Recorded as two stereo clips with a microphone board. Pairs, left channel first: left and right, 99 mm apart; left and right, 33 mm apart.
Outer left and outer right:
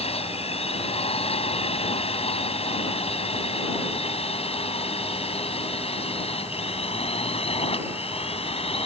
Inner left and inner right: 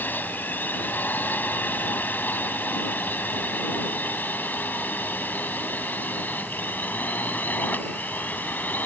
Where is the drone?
80° left; by 8.9 s 75° left (ahead or behind).